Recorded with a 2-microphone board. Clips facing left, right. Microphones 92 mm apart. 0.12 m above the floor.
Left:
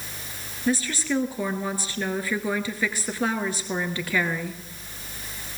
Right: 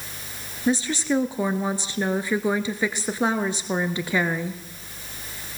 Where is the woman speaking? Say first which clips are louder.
Right 3 dB; 20° right (ahead or behind), 1.6 m.